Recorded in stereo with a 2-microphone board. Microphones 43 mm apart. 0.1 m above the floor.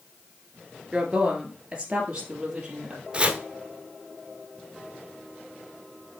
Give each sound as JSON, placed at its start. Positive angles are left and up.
{"t": 0.9, "sound": "a woman speaking", "side_deg": -25, "distance_m": 1.8}
{"t": 3.1, "sound": "chopping", "side_deg": -25, "distance_m": 1.0}